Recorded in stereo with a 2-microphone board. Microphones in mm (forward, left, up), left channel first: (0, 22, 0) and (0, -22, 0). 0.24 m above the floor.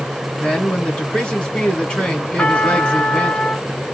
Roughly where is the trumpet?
Left.